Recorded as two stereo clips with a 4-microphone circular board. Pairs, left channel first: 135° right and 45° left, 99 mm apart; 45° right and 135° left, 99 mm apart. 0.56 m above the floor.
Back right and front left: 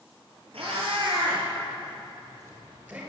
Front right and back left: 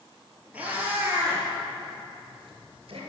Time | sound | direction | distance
0.5 | a cat meowing | 60° left | 2.5 m